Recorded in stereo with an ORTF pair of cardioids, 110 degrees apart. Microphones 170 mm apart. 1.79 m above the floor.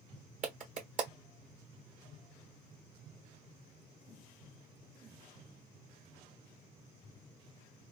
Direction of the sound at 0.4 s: 55° right.